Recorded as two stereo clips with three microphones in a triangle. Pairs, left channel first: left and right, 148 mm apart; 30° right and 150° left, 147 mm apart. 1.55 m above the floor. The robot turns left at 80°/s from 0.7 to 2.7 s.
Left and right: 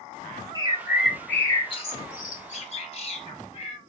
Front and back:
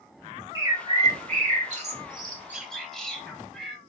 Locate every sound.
0.6 s a bird: 145° right, 1.1 m; by 3.8 s 55° left, 1.1 m